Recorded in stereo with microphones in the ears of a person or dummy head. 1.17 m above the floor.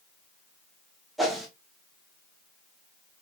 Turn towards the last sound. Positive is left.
turn(degrees=0)  # may be behind; listen again after turning